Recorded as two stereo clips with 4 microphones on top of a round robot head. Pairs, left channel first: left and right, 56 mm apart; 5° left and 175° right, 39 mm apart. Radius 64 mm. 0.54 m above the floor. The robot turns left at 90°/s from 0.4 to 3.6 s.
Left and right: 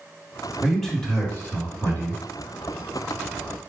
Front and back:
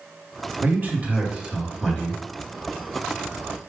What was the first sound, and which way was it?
A man speaking, 165° right.